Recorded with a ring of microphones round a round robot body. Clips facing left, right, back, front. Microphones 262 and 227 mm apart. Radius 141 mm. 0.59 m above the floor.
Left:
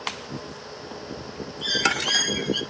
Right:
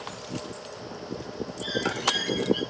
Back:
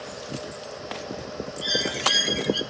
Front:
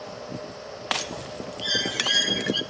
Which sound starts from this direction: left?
A bird, at 1.6 s.